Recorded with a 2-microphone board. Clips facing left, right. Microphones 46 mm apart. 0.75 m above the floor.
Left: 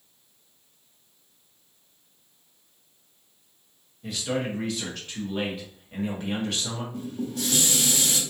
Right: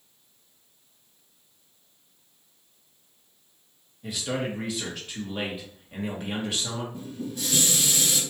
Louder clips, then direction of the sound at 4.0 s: Left 1 dB; 5° right (ahead or behind).